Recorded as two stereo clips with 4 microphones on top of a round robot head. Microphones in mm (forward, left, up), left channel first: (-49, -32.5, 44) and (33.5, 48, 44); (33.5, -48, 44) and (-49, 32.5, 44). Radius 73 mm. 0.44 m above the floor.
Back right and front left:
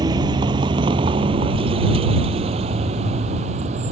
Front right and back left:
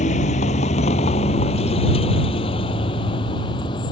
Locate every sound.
0.0 s a vehicle: 15° right; by 3.9 s 10° left